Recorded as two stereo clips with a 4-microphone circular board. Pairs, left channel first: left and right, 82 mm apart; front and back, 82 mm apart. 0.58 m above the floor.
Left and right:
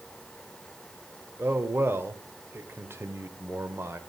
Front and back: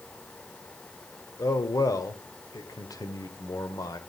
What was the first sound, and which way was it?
A man speaking, 30° right.